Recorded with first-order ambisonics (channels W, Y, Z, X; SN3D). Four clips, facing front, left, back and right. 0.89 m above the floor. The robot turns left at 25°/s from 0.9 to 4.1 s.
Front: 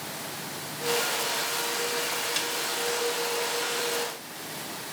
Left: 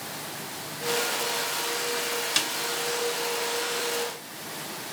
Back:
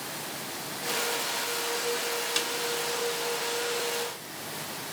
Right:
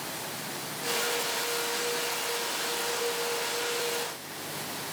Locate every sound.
2.4 s a snare drum: 100° left, 1.1 m; by 2.5 s 95° left, 1.1 m